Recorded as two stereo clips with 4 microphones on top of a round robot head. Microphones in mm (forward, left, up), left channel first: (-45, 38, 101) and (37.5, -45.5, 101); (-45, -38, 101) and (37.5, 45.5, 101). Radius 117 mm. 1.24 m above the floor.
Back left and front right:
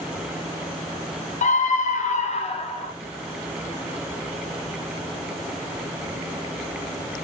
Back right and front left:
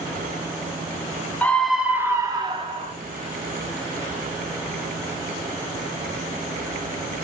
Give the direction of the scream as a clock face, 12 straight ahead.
7 o'clock.